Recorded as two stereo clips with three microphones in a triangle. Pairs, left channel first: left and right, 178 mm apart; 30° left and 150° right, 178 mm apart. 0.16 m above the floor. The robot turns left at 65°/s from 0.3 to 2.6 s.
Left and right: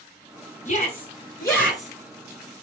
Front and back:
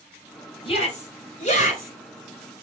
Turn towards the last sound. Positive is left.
turn(degrees=-50)